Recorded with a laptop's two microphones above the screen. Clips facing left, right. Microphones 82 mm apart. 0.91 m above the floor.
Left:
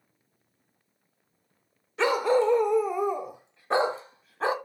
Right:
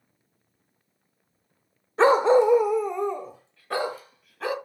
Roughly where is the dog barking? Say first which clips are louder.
Right 6 dB; right.